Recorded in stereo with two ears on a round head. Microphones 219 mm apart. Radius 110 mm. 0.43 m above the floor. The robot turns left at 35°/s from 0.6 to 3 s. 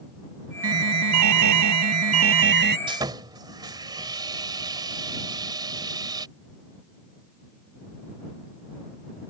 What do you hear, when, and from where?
0.6 s an alarm: 65° right; by 2.8 s 140° right
2.9 s sawing: 20° right (ahead or behind)